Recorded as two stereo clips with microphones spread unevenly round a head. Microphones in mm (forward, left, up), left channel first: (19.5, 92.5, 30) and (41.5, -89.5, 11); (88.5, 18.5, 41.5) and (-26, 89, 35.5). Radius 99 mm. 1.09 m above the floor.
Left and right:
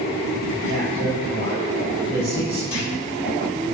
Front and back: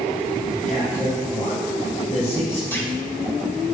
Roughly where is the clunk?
Ahead left.